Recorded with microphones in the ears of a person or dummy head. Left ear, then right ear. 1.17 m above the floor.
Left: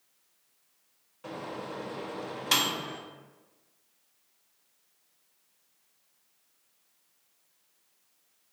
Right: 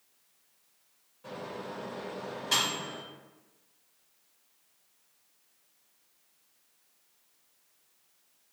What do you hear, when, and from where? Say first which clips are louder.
1.2 s a microwave: left 2 dB; 35° left (ahead or behind), 0.5 m